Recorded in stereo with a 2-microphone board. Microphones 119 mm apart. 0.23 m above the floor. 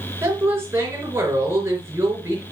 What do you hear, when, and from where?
0.2 s a woman speaking: 20° right (ahead or behind), 4 m